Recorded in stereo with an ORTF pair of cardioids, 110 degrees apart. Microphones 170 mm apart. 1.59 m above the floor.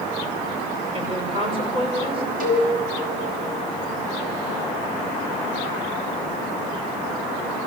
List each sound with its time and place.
0.9 s a woman speaking: 30° right, 6 m
2.4 s a cowbell: 55° right, 6.5 m